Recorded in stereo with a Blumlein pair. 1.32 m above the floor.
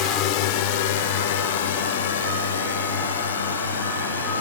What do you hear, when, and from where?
0.0 s a drone: 40° left; by 4.4 s 70° left